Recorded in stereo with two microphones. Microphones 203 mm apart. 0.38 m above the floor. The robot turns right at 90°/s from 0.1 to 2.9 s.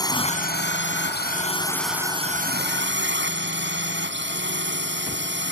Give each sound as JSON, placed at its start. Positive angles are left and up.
{"t": 0.0, "sound": "a drone", "azimuth_deg": 20}